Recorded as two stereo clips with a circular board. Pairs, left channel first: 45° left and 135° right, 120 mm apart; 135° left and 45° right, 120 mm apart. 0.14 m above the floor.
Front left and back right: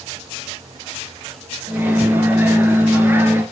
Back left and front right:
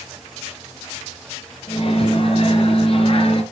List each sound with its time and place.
1.7 s a microwave: 155° left, 1.6 m